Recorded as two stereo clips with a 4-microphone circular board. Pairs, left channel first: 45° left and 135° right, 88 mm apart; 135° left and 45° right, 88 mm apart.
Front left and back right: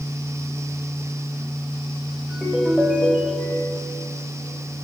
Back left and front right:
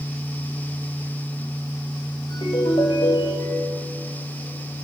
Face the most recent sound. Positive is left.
turn(degrees=145)